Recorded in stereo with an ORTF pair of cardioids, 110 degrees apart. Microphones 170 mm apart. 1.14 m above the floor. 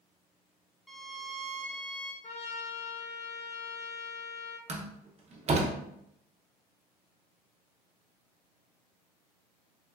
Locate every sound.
0.9 s a violin: straight ahead, 0.7 m
2.2 s a trumpet: 40° left, 0.6 m
4.7 s a door slam: 40° right, 0.7 m